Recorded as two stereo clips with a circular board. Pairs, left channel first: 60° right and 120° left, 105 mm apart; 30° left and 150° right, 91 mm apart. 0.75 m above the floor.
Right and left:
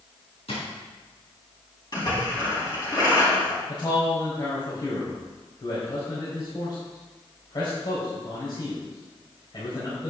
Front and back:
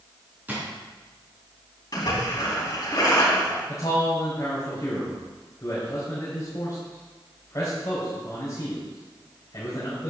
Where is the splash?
15° right, 4 m.